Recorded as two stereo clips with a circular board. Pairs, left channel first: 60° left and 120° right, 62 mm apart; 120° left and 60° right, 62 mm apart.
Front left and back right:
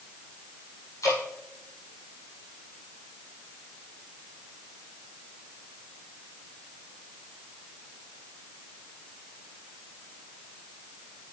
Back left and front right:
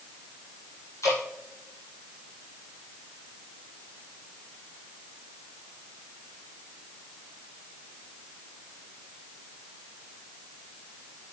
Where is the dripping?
85° left, 5.5 m.